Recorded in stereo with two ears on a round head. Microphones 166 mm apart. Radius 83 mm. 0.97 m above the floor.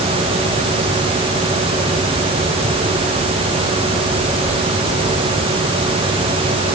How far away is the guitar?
No guitar in this recording.